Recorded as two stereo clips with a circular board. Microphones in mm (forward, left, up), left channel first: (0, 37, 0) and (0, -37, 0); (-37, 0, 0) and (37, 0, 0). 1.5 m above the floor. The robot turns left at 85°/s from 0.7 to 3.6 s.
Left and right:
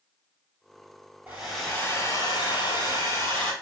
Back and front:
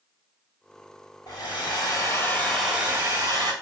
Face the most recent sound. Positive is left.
turn(degrees=5)